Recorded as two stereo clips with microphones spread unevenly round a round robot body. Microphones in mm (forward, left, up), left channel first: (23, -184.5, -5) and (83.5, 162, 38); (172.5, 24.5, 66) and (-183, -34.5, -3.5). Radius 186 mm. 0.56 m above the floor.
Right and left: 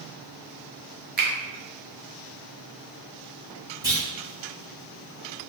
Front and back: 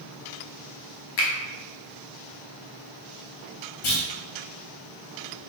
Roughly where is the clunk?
Ahead.